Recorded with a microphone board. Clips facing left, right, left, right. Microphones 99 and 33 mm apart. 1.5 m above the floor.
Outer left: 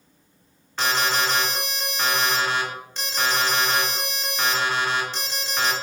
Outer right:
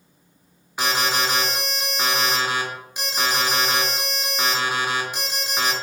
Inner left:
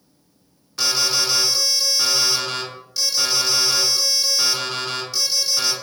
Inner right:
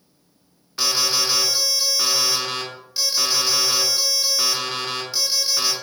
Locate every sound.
0.8 s an alarm: 10° right (ahead or behind), 0.8 m